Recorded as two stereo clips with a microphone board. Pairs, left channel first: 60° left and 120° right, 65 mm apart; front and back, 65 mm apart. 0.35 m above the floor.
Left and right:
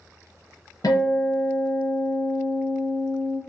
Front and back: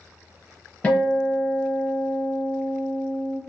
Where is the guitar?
70° left, 1.0 m.